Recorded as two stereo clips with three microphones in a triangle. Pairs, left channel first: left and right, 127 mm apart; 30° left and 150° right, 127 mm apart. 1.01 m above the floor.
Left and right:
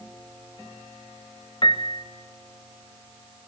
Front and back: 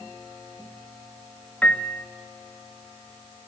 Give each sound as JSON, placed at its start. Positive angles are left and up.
{"t": 1.6, "sound": "a piano", "azimuth_deg": 100, "distance_m": 0.9}